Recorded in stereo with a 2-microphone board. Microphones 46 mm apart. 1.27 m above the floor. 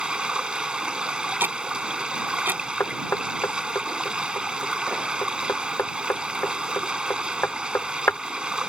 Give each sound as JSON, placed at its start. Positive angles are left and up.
{"t": 0.0, "sound": "running water", "side_deg": -20}
{"t": 1.4, "sound": "ticking", "side_deg": -45}
{"t": 2.8, "sound": "knocking", "side_deg": 60}